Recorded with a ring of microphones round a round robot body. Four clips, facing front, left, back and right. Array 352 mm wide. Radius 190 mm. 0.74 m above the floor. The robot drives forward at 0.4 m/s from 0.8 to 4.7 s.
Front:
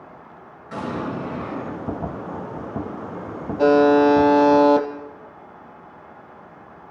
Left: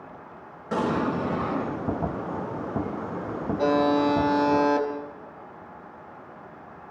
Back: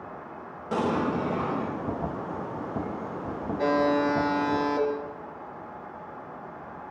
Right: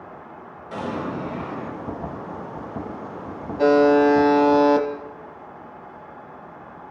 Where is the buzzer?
30° right, 3 m; by 4.9 s 35° right, 2.5 m.